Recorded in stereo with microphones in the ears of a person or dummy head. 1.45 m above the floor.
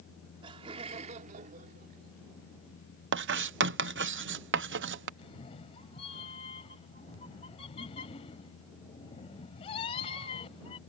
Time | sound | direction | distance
0.4 | laughter | 25° right (ahead or behind) | ?
3.1 | writing | 55° right (ahead or behind) | ?
5.2 | a cat meowing | 30° left (ahead or behind) | ?